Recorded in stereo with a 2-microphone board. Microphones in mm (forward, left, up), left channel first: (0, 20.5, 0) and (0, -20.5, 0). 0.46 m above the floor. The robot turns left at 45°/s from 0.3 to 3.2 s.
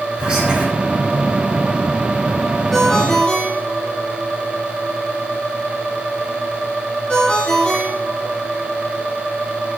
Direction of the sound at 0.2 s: 20° right (ahead or behind).